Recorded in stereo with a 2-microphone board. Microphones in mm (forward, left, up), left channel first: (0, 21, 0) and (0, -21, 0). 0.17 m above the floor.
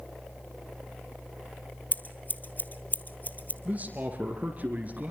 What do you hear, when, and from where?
1.9 s scissors: 40° left (ahead or behind), 1.7 m
3.6 s a man speaking: 35° right (ahead or behind), 2.5 m